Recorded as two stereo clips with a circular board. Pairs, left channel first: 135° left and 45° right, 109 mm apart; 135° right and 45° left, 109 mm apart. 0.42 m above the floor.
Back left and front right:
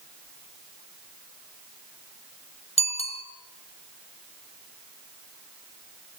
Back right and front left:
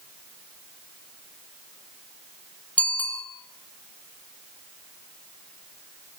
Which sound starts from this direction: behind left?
A bicycle bell, at 2.8 s.